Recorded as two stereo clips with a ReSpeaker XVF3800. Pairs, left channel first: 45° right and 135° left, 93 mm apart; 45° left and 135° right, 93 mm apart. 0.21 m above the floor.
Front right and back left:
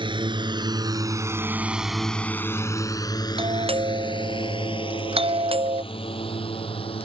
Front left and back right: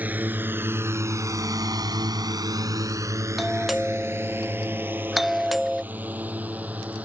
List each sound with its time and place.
0.0 s a drone: 155° left; by 7.0 s 60° right
3.4 s a doorbell: 135° left